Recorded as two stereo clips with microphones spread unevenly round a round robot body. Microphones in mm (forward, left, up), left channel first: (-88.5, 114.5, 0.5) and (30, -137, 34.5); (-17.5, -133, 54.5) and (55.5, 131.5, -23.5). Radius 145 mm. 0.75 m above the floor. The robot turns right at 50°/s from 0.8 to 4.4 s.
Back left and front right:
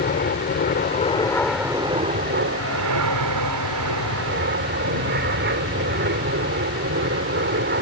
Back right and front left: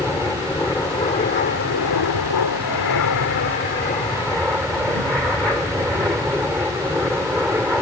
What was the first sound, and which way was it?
An aircraft, 170° left.